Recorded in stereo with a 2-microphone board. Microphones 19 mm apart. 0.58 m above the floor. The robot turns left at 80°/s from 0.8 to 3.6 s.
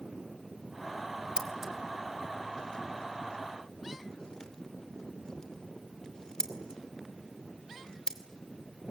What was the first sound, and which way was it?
Scissors, 35° right (ahead or behind).